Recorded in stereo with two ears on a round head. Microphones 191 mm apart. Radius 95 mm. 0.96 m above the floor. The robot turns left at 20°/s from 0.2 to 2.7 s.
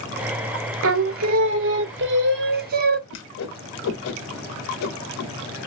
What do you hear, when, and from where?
0.8 s singing: 95° right, 0.6 m; by 3.0 s 130° right, 0.6 m
3.1 s a whoosh: 65° left (ahead or behind), 0.7 m